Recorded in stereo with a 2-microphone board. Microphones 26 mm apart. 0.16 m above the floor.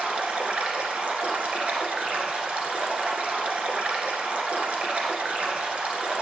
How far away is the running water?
About 1.7 m.